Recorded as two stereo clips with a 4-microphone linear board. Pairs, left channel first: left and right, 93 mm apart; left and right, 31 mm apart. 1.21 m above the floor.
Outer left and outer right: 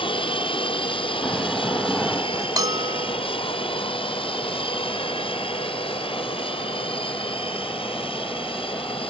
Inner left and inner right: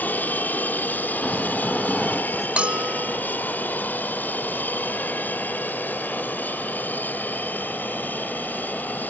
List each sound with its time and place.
0.0 s an aircraft: 70° left (ahead or behind); by 9.1 s 75° left (ahead or behind)
1.2 s snoring: centre (ahead or behind)
2.6 s a bell: 45° right (ahead or behind)